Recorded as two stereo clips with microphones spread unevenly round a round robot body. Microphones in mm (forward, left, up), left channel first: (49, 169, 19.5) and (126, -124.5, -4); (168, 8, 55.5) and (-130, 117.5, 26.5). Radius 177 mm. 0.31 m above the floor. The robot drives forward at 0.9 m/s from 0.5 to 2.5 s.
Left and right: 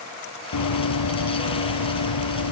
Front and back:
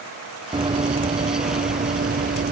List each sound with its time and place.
0.5 s running footsteps: 85° left; by 2.5 s 95° left